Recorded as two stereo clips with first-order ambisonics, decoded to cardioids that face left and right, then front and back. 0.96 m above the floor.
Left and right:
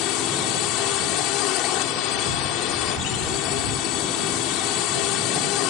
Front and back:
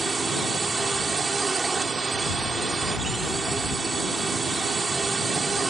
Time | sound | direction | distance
0.0 | a drone | 110° left | ?